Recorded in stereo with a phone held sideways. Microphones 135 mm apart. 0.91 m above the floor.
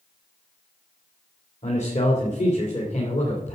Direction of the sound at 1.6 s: 55° left (ahead or behind).